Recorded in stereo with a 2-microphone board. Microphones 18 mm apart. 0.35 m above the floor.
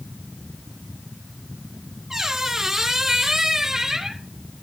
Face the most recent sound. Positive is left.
turn(degrees=-30)  # may be behind; listen again after turning